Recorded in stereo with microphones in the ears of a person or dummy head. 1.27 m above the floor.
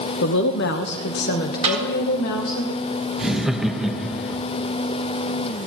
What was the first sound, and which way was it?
A woman speaking, 65° left (ahead or behind).